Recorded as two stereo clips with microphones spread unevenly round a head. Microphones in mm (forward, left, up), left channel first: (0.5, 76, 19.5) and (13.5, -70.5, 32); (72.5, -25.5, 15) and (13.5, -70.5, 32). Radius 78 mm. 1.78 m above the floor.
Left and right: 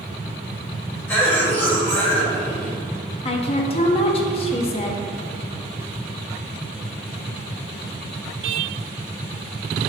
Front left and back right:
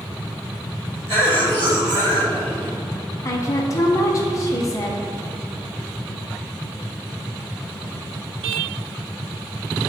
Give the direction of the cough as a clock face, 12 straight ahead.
6 o'clock.